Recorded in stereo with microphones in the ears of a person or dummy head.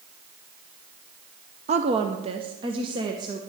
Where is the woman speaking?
35° right (ahead or behind), 0.6 m; by 3.4 s 25° right (ahead or behind), 1.4 m.